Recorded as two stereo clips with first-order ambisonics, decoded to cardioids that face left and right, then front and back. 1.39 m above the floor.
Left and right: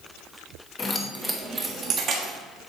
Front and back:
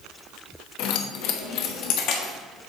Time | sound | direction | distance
0.8 | keys jangling | 20° left | 1.0 m